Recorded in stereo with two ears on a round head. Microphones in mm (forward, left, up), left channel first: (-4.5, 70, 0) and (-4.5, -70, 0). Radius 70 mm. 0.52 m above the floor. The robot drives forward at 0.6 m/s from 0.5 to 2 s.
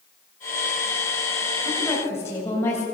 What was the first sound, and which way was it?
A woman speaking, 15° left (ahead or behind).